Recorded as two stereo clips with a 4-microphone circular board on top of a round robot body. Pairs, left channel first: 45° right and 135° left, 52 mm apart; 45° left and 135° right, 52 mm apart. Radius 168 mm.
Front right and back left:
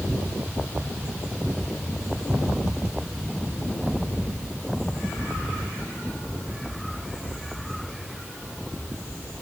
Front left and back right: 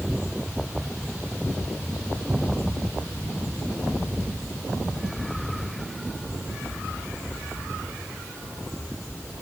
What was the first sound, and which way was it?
Only background noise.